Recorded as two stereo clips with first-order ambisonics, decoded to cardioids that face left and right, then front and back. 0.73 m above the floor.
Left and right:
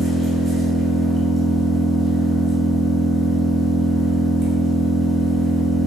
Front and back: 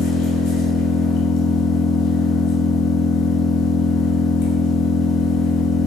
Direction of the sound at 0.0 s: 25° right.